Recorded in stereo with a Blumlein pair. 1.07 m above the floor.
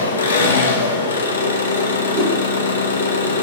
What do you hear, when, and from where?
0.0 s an engine running: 70° left, 0.9 m
2.1 s a whoosh: 30° right, 1.3 m